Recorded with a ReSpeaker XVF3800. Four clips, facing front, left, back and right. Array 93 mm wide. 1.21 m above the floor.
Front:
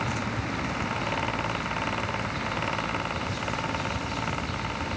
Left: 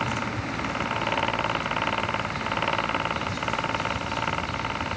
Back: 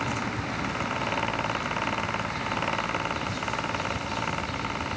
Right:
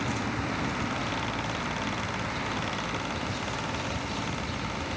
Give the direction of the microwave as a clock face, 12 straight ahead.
No microwave in this recording.